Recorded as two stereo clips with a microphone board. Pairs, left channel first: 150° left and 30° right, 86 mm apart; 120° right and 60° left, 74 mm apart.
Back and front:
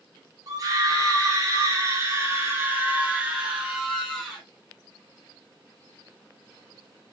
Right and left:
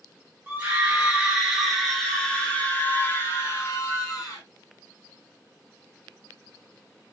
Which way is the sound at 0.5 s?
5° right.